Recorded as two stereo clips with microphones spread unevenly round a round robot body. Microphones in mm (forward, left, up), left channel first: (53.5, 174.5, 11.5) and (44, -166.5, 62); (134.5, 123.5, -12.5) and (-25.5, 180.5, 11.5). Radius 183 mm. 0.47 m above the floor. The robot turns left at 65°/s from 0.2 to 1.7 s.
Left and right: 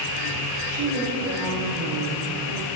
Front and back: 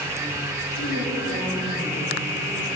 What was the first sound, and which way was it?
A woman speaking, 15° right.